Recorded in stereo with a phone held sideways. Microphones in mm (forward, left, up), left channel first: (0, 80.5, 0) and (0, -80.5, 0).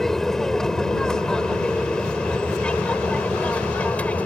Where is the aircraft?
5° left (ahead or behind); by 4.3 s 10° left (ahead or behind).